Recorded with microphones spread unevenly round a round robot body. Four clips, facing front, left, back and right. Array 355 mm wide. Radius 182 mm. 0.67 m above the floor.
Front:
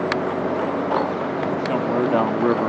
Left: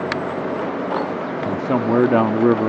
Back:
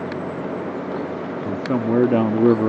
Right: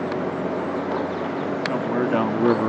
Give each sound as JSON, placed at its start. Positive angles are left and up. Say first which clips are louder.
{"t": 1.4, "sound": "a man speaking", "louder": "left 9 dB, back 3 dB", "azimuth_deg": 125}